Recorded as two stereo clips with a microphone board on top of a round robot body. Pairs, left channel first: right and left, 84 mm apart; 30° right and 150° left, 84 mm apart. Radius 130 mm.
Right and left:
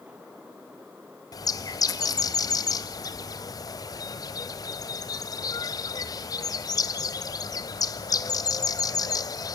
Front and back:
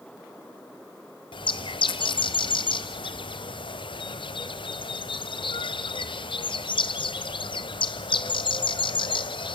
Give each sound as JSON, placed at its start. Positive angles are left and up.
{"t": 1.3, "sound": "a bird", "azimuth_deg": -50, "distance_m": 1.0}